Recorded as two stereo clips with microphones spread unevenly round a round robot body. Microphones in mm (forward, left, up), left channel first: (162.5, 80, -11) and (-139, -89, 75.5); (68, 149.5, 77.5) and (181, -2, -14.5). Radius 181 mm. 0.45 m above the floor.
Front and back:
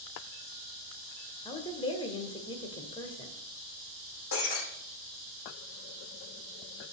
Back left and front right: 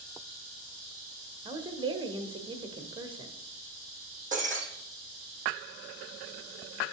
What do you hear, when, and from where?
1.4 s a woman speaking: 30° right, 1.6 m
4.3 s breaking glass: straight ahead, 7.5 m